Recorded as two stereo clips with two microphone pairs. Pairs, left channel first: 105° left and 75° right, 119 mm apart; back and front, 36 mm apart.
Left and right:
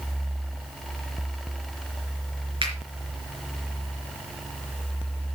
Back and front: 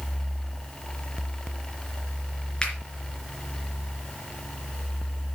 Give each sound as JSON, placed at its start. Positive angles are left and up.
{"t": 2.6, "sound": "a finger snap", "azimuth_deg": -110, "distance_m": 3.5}